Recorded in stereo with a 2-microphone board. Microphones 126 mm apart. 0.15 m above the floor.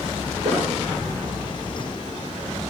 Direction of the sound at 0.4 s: 60° right (ahead or behind).